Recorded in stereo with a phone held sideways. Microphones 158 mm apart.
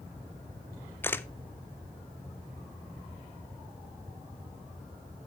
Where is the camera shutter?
15° left (ahead or behind), 0.5 m.